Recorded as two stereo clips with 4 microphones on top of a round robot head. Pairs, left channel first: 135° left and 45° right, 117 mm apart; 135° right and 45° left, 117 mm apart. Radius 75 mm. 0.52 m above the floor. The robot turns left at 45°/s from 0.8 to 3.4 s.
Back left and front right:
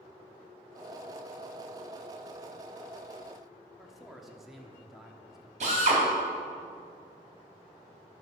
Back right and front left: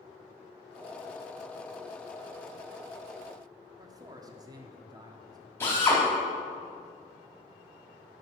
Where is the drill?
65° right, 4 m.